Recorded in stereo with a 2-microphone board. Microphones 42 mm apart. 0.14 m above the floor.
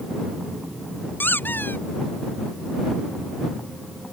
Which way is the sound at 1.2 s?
50° left (ahead or behind).